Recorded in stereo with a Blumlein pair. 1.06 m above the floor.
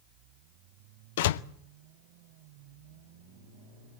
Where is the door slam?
55° left, 0.6 m.